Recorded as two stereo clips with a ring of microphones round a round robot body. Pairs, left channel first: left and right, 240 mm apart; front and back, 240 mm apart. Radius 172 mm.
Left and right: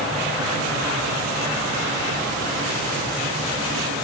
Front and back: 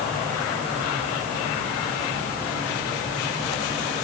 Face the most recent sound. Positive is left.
No sound to turn to.